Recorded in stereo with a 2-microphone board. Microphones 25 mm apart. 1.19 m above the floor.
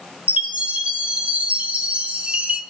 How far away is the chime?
About 4 m.